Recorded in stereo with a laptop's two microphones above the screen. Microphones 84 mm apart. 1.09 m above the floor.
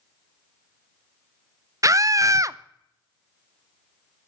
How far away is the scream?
About 0.5 m.